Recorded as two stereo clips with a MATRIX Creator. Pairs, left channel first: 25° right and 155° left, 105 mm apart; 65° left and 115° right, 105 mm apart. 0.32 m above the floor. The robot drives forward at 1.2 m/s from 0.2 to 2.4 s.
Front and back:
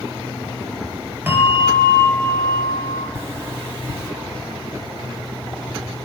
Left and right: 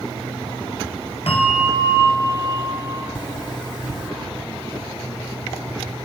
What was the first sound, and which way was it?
A bell, 85° left.